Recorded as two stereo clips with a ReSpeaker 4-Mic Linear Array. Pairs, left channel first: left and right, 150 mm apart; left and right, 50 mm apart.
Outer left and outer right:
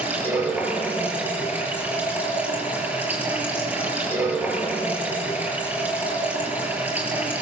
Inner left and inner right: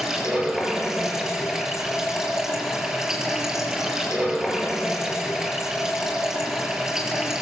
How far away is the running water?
About 5 m.